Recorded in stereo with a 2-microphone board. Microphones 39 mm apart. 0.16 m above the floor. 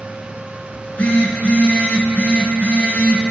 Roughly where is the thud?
I don't hear a thud.